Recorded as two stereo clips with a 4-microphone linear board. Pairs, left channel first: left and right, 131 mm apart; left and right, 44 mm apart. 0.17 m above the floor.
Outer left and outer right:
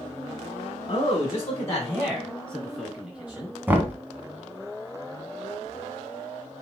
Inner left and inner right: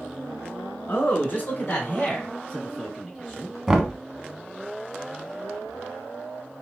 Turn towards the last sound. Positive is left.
turn(degrees=-15)  # may be behind; listen again after turning